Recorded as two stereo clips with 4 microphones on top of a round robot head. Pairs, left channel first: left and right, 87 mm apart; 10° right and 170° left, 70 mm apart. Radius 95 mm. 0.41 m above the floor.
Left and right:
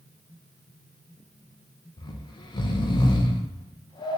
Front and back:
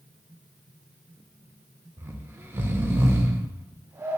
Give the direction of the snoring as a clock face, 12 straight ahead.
8 o'clock.